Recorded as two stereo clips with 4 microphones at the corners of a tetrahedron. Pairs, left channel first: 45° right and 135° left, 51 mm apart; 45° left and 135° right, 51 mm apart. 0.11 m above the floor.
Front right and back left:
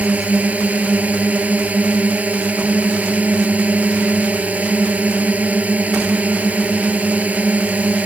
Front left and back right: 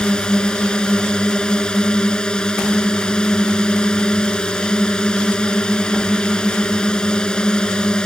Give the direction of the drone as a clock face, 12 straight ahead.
8 o'clock.